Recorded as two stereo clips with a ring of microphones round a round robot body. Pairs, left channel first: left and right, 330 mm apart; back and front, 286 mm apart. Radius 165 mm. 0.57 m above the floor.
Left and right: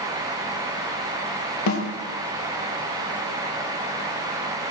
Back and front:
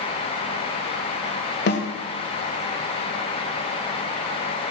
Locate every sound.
1.7 s a snare drum: 130° left, 2.5 m